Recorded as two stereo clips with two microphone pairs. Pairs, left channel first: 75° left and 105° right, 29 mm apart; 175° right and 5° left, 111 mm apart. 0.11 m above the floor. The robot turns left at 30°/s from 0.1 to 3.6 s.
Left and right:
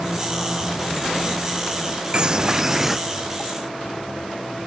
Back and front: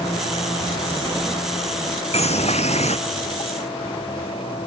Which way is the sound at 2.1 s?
160° right.